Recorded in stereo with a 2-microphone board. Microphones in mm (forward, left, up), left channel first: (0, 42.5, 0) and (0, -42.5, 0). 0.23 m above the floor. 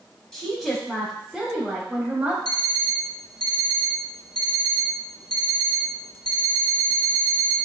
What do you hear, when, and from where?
0.3 s a woman speaking: 5° left (ahead or behind), 1.3 m; by 2.4 s 20° right (ahead or behind), 1.1 m
2.5 s an alarm clock: 50° left (ahead or behind), 0.6 m